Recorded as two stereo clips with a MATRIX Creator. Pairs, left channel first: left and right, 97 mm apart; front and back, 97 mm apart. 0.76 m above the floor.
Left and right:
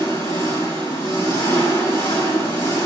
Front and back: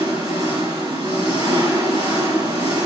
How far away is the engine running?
About 2.5 m.